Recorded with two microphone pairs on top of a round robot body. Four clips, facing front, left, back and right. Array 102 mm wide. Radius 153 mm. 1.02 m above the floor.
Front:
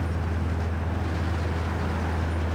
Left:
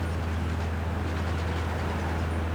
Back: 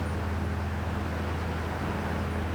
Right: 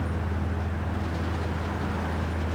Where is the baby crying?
No baby crying in this recording.